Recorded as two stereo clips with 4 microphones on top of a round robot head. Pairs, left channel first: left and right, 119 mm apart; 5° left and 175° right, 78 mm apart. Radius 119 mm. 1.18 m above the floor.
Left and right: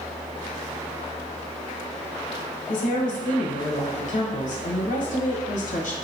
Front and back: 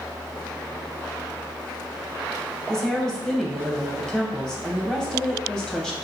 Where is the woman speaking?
85° left, 0.9 m.